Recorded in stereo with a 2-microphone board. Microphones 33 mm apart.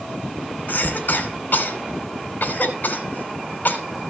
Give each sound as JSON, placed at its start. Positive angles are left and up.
{"t": 0.7, "sound": "a cough", "side_deg": 70, "distance_m": 3.0}